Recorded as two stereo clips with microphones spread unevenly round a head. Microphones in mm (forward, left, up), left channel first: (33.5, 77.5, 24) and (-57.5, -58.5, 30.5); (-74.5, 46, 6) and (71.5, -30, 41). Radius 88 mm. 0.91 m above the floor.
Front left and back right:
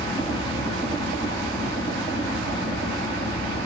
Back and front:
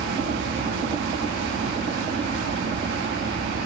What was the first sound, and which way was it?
A fan, 10° right.